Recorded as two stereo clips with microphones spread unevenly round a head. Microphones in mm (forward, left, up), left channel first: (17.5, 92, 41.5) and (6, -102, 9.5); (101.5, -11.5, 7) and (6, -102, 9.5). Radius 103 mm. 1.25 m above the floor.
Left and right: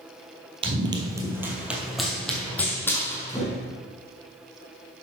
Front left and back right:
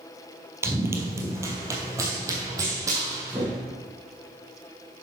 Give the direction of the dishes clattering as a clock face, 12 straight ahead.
I don't hear dishes clattering.